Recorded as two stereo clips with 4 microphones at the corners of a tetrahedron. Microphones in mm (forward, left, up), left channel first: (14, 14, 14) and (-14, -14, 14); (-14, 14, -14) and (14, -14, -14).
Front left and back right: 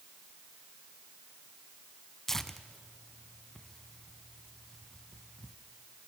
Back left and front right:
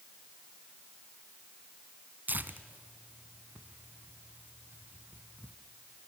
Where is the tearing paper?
30° right, 1.1 m.